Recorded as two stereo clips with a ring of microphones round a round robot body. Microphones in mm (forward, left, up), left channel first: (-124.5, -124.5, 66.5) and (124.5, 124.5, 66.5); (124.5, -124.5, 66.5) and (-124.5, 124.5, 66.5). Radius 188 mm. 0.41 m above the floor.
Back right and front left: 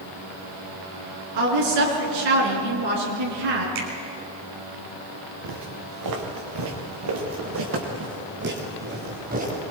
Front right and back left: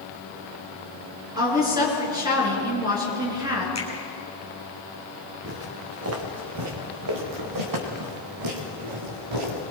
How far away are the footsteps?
About 3 m.